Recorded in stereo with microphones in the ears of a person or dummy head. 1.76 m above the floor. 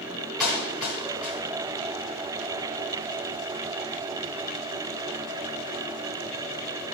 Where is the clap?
Centre (ahead or behind), 6 m.